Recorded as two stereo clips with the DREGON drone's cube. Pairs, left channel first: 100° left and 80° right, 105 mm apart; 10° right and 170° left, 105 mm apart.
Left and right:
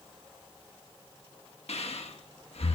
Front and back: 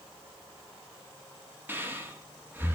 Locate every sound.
1.7 s breathing: 100° left, 1.6 m